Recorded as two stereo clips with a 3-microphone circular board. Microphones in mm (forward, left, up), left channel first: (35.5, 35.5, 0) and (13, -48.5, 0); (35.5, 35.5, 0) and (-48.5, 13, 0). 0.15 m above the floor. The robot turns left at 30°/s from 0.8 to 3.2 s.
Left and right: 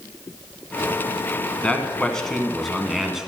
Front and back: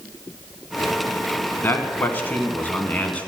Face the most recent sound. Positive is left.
turn(degrees=-30)